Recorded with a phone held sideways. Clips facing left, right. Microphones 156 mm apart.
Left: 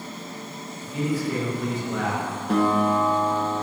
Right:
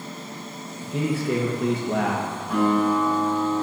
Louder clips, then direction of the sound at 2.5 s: Even; 75° left (ahead or behind).